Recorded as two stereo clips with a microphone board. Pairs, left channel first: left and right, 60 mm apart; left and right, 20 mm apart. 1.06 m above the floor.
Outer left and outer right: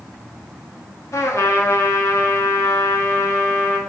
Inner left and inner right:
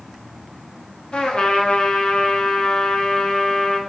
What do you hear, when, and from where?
1.1 s a trumpet: 55° left (ahead or behind), 0.5 m